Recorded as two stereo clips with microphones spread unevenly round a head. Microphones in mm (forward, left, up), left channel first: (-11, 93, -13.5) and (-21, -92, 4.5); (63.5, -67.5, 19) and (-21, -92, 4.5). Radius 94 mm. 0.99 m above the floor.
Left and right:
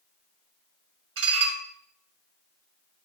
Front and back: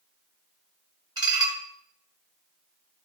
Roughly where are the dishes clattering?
Behind right.